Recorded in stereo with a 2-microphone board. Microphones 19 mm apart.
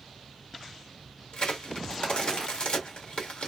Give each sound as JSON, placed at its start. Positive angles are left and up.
{"t": 1.3, "sound": "a crack", "side_deg": 45, "distance_m": 1.5}